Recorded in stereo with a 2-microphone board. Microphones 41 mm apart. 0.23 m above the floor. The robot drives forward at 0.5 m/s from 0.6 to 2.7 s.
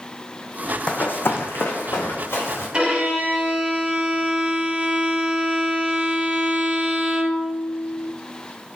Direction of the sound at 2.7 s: 30° right (ahead or behind).